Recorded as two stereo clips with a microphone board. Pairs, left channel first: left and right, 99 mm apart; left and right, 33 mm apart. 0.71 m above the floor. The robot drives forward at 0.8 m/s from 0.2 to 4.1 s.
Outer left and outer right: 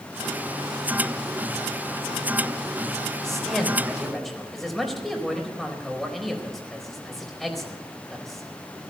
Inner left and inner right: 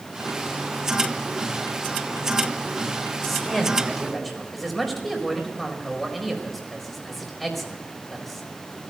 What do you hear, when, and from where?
3.2 s a man speaking: 5° left (ahead or behind), 3.5 m